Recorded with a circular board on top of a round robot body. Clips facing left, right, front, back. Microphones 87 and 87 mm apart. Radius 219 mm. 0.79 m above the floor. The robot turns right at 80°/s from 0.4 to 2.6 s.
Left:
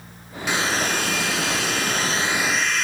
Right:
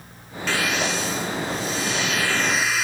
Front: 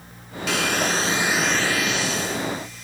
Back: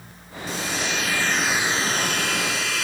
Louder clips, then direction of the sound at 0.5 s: Left 1 dB, front 5 dB; 15° left.